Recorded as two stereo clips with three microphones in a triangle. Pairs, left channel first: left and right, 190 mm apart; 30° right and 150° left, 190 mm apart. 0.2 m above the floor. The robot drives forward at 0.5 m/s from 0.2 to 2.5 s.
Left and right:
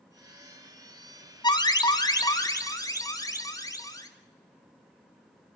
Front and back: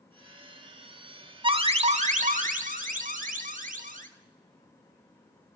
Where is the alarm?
125° left, 1.2 m; by 4.1 s 150° left, 1.4 m.